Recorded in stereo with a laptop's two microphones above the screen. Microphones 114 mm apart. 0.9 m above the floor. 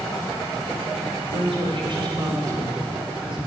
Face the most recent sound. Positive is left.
turn(degrees=-5)  # may be behind; listen again after turning